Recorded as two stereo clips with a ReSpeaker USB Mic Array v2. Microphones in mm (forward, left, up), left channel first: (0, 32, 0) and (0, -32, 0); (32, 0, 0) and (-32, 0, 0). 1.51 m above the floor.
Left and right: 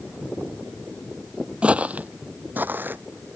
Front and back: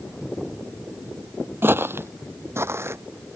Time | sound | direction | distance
1.6 | footsteps | 155° right | ?